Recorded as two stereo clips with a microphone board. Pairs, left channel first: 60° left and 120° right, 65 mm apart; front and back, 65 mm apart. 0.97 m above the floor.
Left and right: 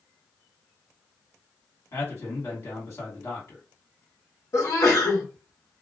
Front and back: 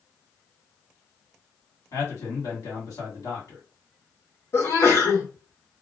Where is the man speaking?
15° left, 1.9 m.